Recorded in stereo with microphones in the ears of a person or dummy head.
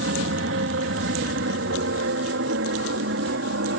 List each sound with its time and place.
0.0 s an aircraft: 60° right (ahead or behind); by 3.8 s 65° right (ahead or behind)